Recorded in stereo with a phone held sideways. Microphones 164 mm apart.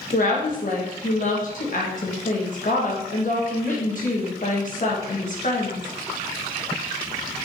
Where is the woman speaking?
55° left (ahead or behind), 1.2 m.